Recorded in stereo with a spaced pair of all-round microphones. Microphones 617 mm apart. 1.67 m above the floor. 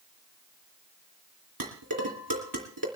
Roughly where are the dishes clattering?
Right.